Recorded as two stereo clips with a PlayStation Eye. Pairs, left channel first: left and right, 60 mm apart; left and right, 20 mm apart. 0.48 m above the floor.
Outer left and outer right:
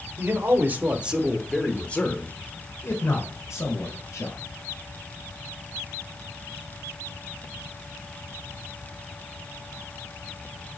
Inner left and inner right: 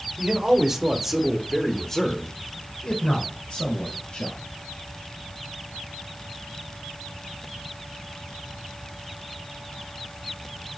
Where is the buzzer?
No buzzer in this recording.